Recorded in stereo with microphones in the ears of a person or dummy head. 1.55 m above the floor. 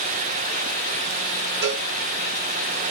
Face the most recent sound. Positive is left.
turn(degrees=-55)  # may be behind; listen again after turning